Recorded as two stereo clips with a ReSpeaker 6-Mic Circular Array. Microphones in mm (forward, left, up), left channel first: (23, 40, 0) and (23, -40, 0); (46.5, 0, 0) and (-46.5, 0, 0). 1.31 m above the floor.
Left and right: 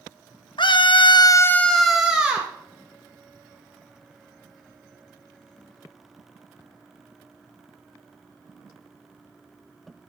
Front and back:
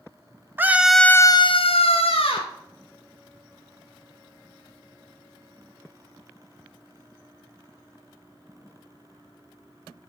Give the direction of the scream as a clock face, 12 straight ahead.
8 o'clock.